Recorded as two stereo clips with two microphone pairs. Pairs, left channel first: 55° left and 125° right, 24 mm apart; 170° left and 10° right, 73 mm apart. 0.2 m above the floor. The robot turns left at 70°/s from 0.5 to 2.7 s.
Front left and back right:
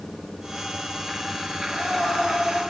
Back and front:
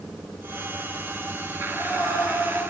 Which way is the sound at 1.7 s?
120° left.